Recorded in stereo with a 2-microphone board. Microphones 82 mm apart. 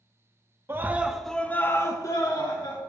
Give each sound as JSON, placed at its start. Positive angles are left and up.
{"t": 0.7, "sound": "a scream", "side_deg": -30, "distance_m": 0.6}